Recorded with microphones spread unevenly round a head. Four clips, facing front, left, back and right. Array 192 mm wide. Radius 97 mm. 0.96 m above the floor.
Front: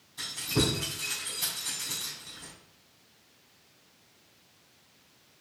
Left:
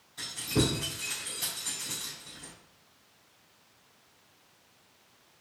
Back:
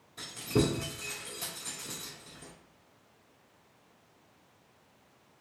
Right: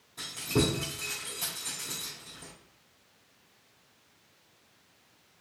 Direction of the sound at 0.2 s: 140° right.